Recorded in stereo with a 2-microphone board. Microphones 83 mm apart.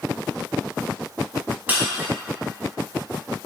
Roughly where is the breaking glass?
Right.